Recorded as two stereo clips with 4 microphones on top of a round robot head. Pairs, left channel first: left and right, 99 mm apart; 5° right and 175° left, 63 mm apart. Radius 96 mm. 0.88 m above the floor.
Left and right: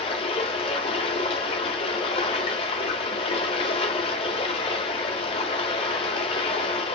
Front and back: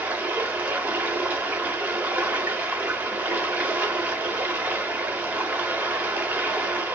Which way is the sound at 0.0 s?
115° left.